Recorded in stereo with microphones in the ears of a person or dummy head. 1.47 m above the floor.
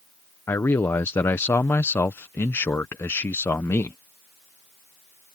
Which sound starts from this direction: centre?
A man speaking, at 0.5 s.